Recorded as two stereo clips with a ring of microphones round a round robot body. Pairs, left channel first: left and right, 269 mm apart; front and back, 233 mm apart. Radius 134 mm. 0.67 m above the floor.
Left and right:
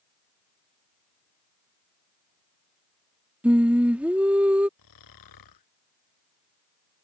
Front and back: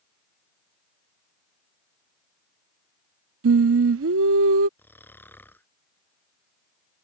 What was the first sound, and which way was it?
Singing, 175° right.